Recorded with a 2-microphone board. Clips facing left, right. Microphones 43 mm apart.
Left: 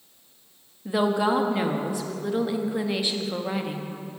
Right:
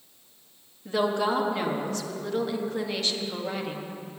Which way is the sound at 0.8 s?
10° left (ahead or behind).